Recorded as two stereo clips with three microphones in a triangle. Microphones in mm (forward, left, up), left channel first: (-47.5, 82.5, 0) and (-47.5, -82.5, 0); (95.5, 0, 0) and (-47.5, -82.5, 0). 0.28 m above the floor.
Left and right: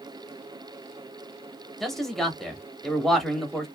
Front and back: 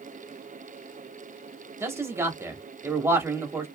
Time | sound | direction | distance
1.8 | a man speaking | 175° left | 0.9 m